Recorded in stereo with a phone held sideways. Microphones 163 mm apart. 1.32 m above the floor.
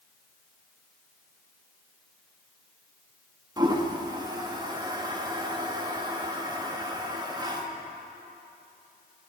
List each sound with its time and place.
3.6 s a toilet flushing: 25° right (ahead or behind), 1.0 m